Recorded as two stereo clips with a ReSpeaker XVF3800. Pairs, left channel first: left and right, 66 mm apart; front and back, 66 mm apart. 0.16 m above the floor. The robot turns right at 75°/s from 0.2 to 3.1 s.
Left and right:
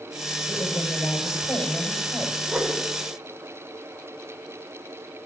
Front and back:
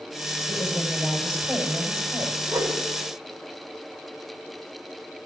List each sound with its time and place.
0.5 s a woman speaking: 40° left, 5.5 m; by 2.4 s straight behind, 5.5 m
2.5 s a whoosh: 175° right, 5 m; by 2.8 s 150° right, 5 m